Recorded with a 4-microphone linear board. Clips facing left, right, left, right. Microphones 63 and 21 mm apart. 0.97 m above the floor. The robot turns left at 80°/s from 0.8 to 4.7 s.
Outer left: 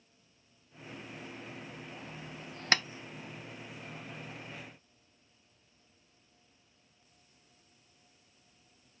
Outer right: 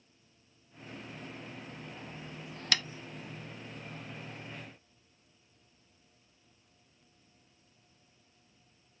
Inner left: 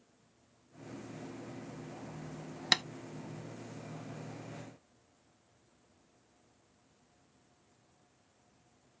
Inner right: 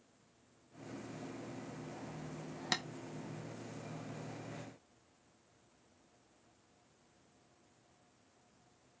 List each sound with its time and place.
2.7 s tapping: 30° left (ahead or behind), 0.6 m; by 2.8 s 20° left (ahead or behind), 0.6 m